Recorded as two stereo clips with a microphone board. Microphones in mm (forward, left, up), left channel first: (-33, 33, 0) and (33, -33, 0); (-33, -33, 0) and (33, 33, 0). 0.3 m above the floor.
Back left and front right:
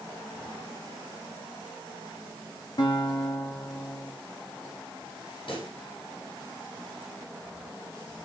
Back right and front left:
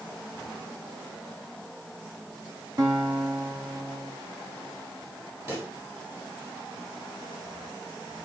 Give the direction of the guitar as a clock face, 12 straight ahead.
9 o'clock.